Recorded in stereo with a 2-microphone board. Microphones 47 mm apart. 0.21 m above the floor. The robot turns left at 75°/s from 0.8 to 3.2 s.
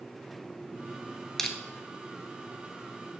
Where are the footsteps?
I don't hear footsteps.